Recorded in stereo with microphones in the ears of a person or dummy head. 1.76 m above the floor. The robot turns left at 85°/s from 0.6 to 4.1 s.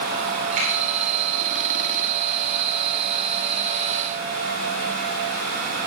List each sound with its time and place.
0.6 s a finger snap: 40° right (ahead or behind), 4 m; by 0.7 s 30° right (ahead or behind), 4 m